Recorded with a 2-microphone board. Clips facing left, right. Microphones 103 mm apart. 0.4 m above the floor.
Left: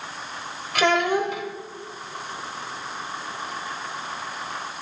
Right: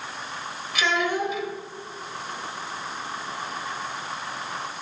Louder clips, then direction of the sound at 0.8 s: Left 4 dB; 55° left (ahead or behind).